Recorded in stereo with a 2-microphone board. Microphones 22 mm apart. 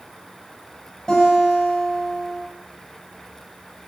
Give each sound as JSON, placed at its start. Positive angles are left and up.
{"t": 1.1, "sound": "a guitar", "side_deg": 25, "distance_m": 8.0}